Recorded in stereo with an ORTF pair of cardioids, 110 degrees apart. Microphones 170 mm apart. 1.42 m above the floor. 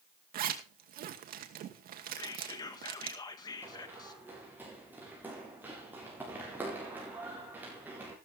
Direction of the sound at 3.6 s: 10° right.